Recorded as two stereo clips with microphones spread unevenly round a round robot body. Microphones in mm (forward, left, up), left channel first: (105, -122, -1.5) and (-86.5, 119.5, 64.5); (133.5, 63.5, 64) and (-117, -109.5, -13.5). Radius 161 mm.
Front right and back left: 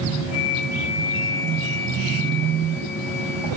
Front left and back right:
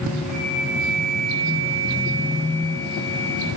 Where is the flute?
130° left, 9 m.